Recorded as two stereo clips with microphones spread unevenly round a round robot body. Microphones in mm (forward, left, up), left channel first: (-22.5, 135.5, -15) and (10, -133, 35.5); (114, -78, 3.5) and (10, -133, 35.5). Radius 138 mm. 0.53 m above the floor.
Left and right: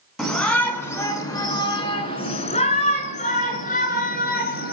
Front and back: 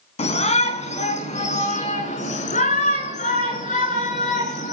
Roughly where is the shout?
Ahead.